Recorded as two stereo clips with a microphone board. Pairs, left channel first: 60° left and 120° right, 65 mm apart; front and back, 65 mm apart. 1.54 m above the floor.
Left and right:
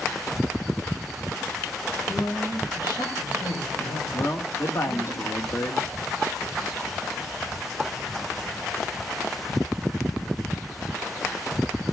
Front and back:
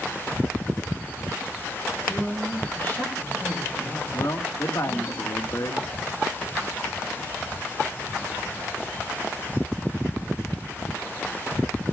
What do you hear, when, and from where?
2.1 s a woman speaking: 60° left, 9 m
4.1 s a man speaking: 25° left, 1.8 m